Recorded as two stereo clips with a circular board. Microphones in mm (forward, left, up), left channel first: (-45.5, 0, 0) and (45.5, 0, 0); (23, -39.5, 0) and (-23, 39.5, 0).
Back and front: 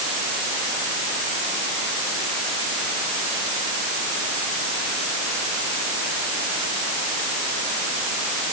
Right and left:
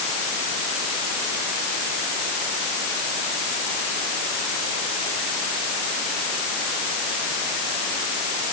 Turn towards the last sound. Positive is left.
No sound to turn to.